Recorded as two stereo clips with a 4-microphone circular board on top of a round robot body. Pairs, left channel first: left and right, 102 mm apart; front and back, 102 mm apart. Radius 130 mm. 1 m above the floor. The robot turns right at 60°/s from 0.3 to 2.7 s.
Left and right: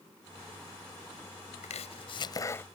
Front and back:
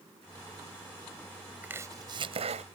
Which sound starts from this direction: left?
Chopping, at 1.6 s.